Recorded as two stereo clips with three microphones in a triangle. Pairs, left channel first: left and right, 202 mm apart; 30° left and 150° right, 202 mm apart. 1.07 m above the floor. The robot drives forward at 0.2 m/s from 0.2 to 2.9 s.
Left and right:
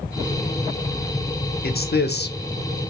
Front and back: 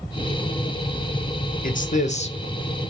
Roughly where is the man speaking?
Ahead left.